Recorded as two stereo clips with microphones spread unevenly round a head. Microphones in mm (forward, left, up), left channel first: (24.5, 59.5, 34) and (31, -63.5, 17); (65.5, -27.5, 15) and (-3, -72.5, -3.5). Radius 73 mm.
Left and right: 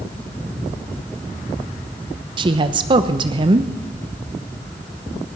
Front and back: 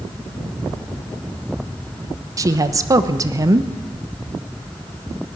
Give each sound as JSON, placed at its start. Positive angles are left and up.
{"t": 2.4, "sound": "a woman speaking", "azimuth_deg": -125, "distance_m": 1.1}